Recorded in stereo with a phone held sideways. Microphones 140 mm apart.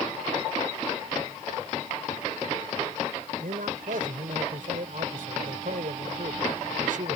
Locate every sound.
3.4 s a man speaking: 75° right (ahead or behind)